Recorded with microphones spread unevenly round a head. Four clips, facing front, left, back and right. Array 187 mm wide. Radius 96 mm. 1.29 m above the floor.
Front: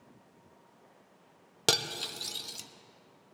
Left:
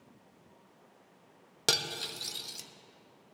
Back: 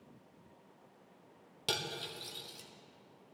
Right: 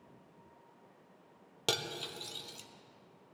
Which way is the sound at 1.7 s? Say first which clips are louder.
Left 1 dB, front 6 dB; straight ahead.